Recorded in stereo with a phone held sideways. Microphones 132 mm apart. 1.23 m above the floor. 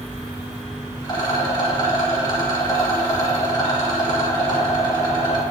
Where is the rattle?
30° left (ahead or behind), 3.5 m.